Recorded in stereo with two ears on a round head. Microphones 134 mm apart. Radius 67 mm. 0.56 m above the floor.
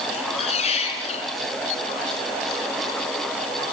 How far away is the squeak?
About 5 m.